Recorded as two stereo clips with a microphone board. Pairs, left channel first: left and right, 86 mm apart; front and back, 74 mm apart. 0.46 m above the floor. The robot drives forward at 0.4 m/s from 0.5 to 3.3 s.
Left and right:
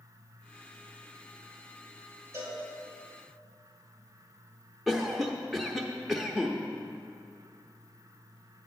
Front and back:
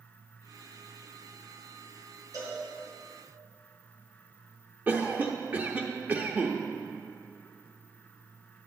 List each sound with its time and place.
2.3 s a cowbell: 145° right, 3 m
4.9 s a cough: straight behind, 0.7 m